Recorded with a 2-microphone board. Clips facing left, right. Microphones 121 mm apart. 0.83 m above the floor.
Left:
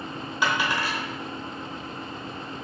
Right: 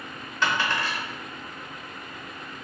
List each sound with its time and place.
0.4 s a dropped coin: 10° left (ahead or behind), 0.9 m